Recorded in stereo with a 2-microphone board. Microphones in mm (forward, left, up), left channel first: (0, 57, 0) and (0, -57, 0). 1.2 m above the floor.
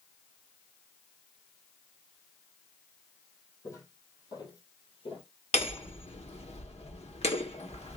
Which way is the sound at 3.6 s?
25° left (ahead or behind).